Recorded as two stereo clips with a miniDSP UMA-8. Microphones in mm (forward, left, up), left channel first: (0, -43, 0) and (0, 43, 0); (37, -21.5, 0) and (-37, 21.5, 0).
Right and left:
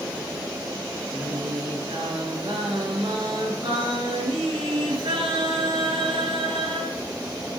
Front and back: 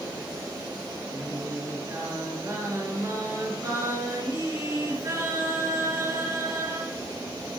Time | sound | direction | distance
1.1 | singing | 100° left | 5 m